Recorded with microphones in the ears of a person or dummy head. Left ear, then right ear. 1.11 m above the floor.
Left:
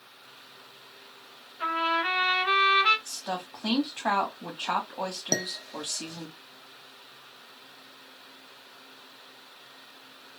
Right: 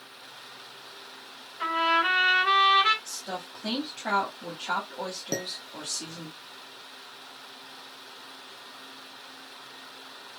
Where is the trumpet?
20° right (ahead or behind), 1.8 m.